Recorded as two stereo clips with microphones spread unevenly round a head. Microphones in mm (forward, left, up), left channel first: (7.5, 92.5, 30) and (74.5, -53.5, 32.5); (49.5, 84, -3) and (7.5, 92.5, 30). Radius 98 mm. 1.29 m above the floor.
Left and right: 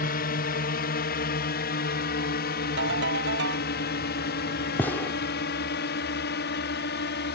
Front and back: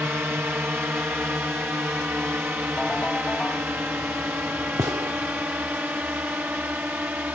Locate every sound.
0.0 s a drone: 110° left; by 7.3 s 115° left
2.8 s a ringtone: 100° right
4.8 s a gunshot: 165° right